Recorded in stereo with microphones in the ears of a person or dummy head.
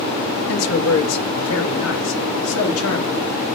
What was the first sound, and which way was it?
A man speaking, 75° left (ahead or behind).